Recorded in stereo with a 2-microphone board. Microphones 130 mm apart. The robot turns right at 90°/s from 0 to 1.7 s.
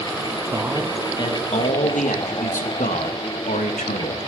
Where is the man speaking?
25° right, 1.4 m; by 4.2 s 85° left, 1.4 m.